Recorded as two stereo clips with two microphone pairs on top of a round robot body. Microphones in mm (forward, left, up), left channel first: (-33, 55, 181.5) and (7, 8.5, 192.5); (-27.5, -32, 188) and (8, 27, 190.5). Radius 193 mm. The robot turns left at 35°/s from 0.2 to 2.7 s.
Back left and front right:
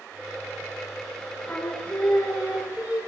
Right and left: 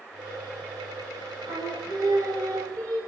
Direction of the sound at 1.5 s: 65° left.